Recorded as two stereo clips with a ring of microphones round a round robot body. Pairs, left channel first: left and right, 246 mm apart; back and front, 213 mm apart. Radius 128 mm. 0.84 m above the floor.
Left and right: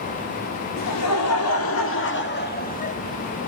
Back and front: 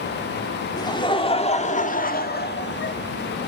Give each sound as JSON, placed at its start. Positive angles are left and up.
{"t": 0.8, "sound": "laughter", "azimuth_deg": 110, "distance_m": 2.0}